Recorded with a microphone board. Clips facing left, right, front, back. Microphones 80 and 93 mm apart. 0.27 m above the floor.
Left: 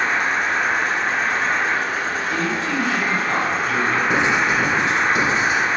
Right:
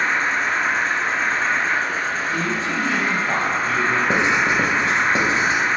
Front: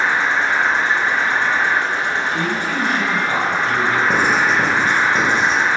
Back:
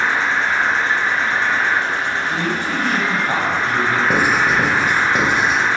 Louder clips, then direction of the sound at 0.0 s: Even, front 1 dB; 60° left.